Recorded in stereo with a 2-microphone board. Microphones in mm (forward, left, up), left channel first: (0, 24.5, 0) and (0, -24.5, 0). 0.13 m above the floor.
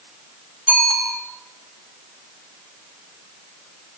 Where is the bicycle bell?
25° right (ahead or behind), 6 m.